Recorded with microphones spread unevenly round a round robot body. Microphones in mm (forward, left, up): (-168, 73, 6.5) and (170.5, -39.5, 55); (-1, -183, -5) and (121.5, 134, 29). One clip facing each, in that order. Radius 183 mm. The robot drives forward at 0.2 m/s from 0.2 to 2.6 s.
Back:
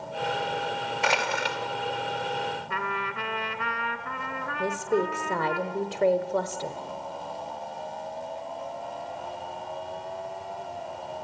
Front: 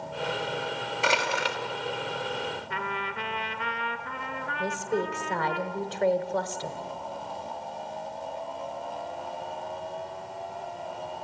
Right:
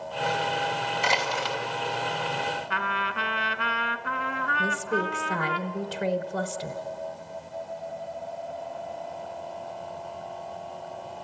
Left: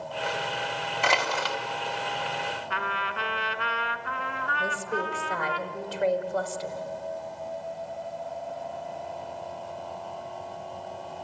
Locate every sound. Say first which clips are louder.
1.0 s crushing: front 1 dB, left 2 dB; 70° left, 2.5 m
2.7 s a trumpet: back 1 dB, right 1 dB; 125° right, 1.1 m
4.6 s a woman speaking: back 3 dB, right 3 dB; 140° right, 1.0 m